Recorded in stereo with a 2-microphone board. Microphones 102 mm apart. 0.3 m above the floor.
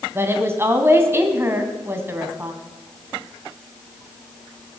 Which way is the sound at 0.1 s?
25° right (ahead or behind).